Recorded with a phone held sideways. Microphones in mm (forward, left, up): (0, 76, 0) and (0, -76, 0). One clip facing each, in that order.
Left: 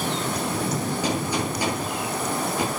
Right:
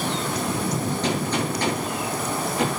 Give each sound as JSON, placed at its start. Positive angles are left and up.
{"t": 1.0, "sound": "a gunshot", "side_deg": 10, "distance_m": 10.0}